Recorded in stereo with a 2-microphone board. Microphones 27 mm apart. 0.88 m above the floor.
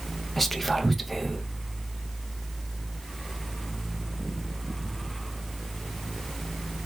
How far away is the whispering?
About 0.5 m.